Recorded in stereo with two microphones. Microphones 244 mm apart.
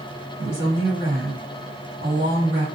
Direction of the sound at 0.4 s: 50° right (ahead or behind).